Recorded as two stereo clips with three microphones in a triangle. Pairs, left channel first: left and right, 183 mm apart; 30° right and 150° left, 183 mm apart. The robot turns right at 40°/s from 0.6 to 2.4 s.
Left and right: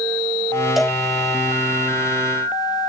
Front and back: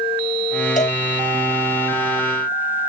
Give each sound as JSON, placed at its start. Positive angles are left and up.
{"t": 0.8, "sound": "a cowbell", "azimuth_deg": 0}